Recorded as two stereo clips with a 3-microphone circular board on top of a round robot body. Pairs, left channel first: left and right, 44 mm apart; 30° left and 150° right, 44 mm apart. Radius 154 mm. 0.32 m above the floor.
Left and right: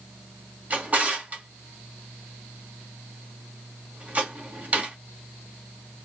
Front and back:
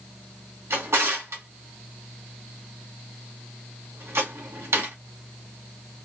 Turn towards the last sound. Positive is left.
turn(degrees=-145)